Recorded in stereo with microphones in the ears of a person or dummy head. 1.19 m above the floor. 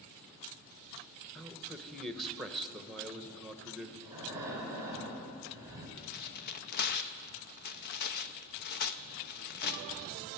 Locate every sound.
1.4 s a man speaking: centre (ahead or behind), 1.0 m
4.0 s breathing: 15° right (ahead or behind), 3.5 m
6.0 s tearing paper: 50° left (ahead or behind), 0.6 m